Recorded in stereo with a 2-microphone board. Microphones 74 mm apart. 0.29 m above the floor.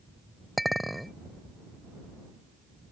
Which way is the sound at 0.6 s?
Centre (ahead or behind).